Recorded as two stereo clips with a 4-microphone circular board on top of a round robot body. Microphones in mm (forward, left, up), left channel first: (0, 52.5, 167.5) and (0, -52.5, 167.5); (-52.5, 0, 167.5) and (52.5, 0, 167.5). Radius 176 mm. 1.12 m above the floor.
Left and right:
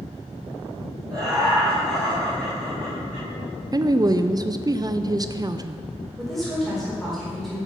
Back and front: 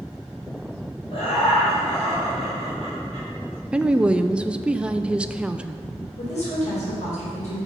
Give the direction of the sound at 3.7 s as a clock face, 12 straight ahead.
3 o'clock.